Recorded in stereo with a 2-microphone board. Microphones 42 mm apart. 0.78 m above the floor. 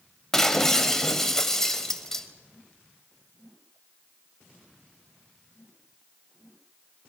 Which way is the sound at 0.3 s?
10° left (ahead or behind).